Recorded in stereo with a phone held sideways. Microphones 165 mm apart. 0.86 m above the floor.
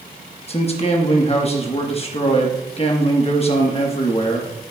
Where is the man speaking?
40° left (ahead or behind), 1.0 m.